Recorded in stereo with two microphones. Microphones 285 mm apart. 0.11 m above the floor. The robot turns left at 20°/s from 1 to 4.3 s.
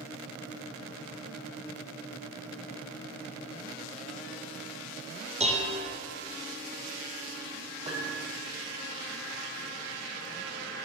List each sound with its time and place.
5.4 s dishes clattering: 25° right (ahead or behind), 1.7 m
7.8 s a piano: 20° right (ahead or behind), 2 m